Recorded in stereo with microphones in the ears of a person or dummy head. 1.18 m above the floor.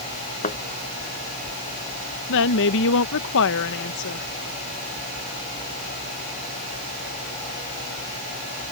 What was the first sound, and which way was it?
A thud, 40° left (ahead or behind).